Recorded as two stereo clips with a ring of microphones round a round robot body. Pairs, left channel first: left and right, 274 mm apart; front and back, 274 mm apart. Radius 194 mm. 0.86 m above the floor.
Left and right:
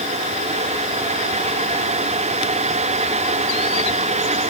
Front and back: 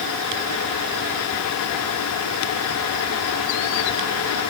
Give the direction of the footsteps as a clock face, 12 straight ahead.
No footsteps in this recording.